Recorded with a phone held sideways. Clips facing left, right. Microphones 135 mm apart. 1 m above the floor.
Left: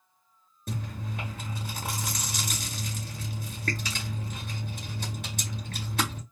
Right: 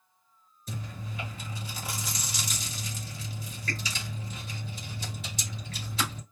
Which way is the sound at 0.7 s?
60° left (ahead or behind).